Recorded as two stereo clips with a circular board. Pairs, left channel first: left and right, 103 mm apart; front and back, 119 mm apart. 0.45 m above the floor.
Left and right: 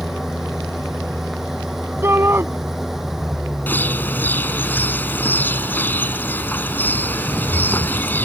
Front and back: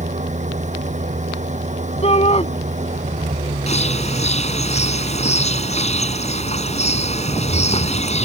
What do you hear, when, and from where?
0.0 s an engine running: straight behind
2.0 s a shout: 25° right
3.7 s a bird: 15° left